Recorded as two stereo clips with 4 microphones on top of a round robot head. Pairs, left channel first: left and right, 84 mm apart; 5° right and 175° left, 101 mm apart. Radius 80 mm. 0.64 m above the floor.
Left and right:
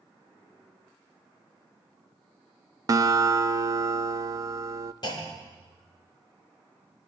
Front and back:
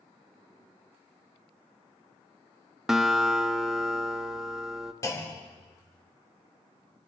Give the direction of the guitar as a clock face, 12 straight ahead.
3 o'clock.